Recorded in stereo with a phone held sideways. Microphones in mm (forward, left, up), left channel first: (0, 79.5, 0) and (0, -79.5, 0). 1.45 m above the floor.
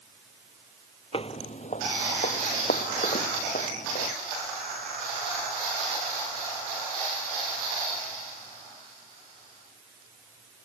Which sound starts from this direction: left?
Footsteps, at 1.1 s.